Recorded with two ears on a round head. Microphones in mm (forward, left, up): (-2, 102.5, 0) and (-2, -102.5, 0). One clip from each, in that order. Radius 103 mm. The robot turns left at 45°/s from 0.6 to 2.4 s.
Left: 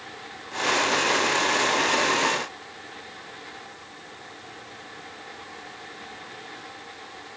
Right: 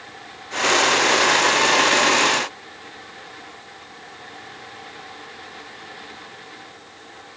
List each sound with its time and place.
Only background noise.